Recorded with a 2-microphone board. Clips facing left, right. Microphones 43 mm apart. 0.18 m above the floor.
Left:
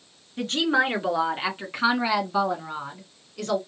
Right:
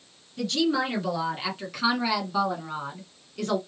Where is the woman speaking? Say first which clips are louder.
Left 2 dB; 45° left (ahead or behind), 2 m; by 3.6 s 5° right (ahead or behind), 1.7 m.